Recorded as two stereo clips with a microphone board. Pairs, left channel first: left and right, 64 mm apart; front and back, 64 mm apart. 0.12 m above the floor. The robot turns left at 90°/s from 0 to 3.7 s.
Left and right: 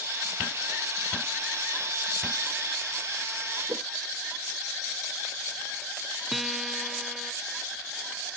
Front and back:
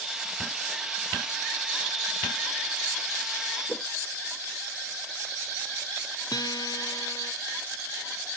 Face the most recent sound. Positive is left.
turn(degrees=0)